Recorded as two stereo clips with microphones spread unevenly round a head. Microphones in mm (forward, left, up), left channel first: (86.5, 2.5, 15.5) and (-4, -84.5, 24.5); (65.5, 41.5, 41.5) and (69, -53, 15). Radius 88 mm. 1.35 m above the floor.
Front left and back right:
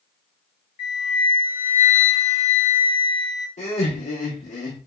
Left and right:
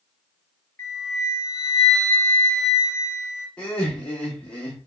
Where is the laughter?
10° left, 1.0 m.